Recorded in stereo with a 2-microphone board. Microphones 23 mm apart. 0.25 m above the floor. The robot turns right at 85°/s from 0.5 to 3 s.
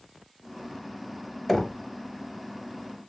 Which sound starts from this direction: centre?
Knocking, at 1.5 s.